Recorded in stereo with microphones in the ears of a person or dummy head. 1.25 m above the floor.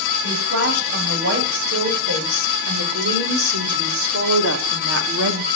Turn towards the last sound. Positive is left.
turn(degrees=-80)